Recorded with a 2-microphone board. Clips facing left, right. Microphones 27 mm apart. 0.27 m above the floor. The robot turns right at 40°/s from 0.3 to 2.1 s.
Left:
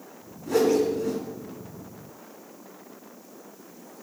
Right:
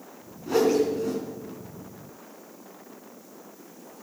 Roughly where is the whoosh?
Centre.